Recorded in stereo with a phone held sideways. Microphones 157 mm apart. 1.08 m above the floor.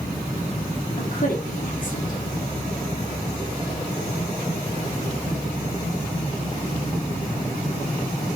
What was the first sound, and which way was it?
A woman speaking, 60° left (ahead or behind).